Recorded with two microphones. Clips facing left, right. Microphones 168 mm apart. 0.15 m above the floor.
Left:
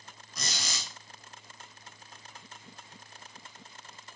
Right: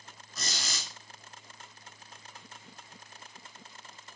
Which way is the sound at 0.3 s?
15° left (ahead or behind).